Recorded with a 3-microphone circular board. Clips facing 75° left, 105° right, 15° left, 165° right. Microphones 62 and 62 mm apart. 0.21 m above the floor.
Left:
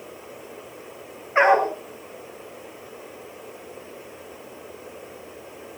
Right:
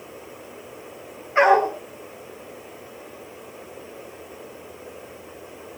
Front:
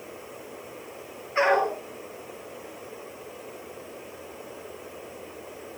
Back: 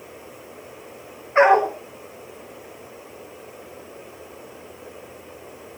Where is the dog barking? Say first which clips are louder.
Right 1 dB, back 7 dB; 140° left, 7 m.